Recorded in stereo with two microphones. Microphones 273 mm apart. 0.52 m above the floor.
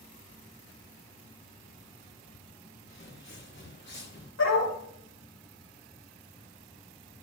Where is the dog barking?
75° left (ahead or behind), 7.5 m.